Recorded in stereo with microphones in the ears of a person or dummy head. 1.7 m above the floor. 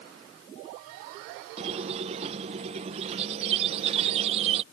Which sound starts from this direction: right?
A squeak, at 1.6 s.